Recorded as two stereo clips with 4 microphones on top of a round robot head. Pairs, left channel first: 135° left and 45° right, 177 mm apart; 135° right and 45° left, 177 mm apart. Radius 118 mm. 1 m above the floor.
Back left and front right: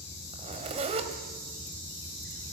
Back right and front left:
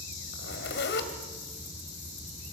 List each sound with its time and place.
0.3 s a zipper: 105° right, 2.0 m